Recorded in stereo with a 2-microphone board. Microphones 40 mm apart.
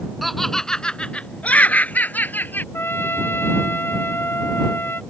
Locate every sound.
0.2 s laughter: centre (ahead or behind); by 2.6 s 50° left (ahead or behind)
2.7 s a trumpet: 65° left (ahead or behind)